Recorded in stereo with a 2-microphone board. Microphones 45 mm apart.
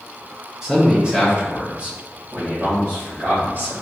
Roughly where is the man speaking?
Centre.